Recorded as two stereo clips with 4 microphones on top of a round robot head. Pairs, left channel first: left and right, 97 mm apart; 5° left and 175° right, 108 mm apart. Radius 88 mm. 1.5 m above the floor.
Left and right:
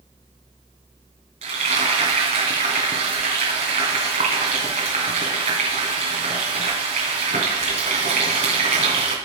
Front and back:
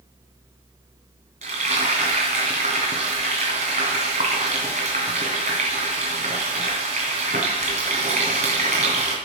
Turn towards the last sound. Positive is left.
turn(degrees=-130)